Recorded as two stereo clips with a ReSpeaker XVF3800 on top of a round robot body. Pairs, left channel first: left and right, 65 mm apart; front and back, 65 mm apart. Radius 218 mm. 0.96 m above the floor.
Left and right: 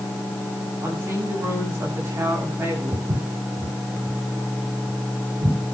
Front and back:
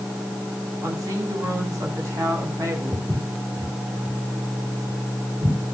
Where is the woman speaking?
145° right, 8 m; by 3.1 s 140° right, 9.5 m.